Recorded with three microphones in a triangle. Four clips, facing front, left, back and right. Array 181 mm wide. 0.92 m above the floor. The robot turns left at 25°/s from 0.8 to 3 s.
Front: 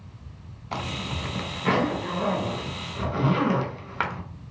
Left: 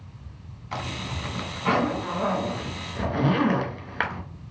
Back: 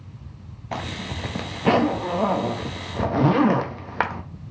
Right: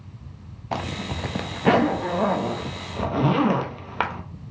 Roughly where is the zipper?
Right.